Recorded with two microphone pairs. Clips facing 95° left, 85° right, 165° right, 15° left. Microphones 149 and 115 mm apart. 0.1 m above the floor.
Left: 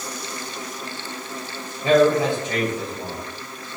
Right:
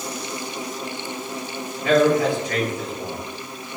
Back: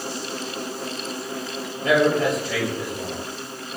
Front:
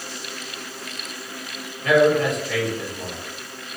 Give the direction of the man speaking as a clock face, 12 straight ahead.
7 o'clock.